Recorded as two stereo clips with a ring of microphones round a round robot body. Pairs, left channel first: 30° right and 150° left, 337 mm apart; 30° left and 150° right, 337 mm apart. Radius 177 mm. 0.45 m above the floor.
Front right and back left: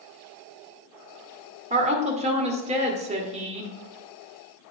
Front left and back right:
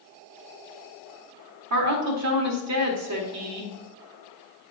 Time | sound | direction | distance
1.7 | a woman speaking | 145° right | 1.6 m